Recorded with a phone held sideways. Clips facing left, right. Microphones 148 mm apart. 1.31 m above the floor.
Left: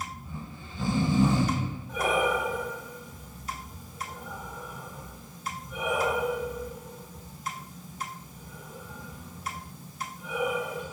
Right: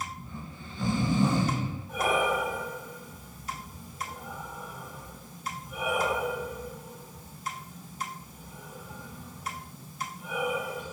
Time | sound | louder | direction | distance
0.2 | snoring | left 1 dB | 5° left (ahead or behind) | 1.3 m
1.9 | breathing | left 1 dB | 10° right (ahead or behind) | 1.3 m